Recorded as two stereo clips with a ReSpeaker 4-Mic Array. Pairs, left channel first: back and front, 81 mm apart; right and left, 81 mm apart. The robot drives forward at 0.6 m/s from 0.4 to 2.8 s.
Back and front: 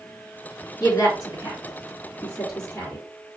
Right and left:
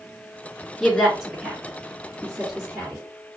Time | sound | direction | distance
0.8 | a woman speaking | 175° right | 2 m